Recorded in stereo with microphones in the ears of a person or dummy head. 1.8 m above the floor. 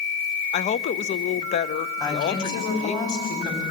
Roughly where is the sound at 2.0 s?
Centre.